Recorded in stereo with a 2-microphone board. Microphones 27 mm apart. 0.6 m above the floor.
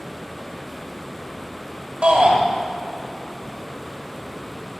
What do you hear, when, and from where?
2.0 s a shout: 55° right (ahead or behind), 2 m